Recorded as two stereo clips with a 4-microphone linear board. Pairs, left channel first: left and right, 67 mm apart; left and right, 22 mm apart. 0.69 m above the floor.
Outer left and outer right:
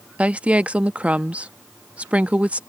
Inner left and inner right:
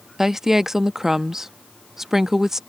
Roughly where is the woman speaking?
Centre.